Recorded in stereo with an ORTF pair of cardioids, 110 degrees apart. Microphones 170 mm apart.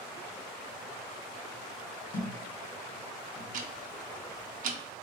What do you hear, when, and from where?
2.1 s a thud: 60° left, 1.6 m
3.5 s ticking: 55° right, 0.6 m